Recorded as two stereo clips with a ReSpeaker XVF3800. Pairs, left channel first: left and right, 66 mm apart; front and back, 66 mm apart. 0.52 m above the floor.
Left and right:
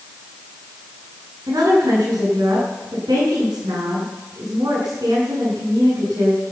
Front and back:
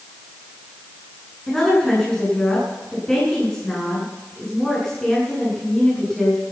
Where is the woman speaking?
85° right, 7.5 m.